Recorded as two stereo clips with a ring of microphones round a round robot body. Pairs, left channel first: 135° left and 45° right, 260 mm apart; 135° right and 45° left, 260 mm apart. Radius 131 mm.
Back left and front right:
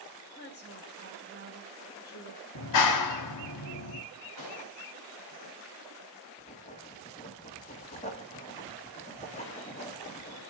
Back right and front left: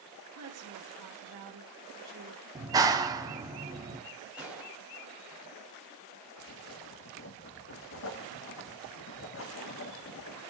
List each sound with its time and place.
0.3 s a woman speaking: 80° left, 2.5 m
2.5 s a clap: 120° left, 1.1 m
4.4 s a gunshot: 130° left, 3.5 m
6.4 s writing: 165° right, 1.4 m